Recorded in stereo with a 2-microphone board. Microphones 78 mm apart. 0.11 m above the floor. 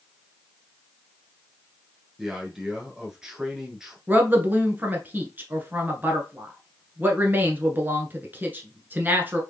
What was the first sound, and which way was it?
A man speaking, 10° right (ahead or behind).